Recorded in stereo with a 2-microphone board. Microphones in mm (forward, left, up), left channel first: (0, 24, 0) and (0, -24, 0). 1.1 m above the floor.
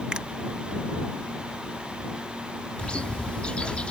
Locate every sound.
0.1 s a finger snap: 20° right (ahead or behind)
2.8 s a bird: 25° left (ahead or behind)